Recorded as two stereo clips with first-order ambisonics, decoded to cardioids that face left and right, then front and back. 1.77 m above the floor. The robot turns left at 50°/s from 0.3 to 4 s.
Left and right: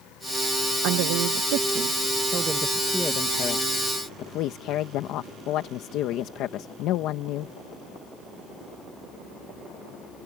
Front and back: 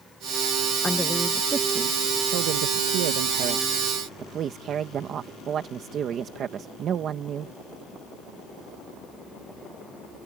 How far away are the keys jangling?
I don't hear keys jangling.